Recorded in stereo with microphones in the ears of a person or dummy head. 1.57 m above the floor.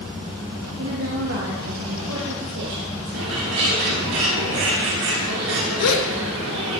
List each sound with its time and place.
0.8 s a woman speaking: 75° right (ahead or behind), 1.9 m
3.1 s a bird: 75° right (ahead or behind), 2.5 m
5.8 s a gasp: 85° left, 1.3 m